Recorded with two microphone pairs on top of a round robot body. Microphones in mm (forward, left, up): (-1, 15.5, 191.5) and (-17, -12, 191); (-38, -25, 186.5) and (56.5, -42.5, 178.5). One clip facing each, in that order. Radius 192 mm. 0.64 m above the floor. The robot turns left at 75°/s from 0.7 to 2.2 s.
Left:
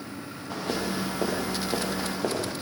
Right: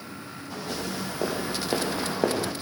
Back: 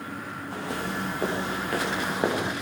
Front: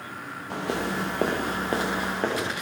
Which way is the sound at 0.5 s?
10° left.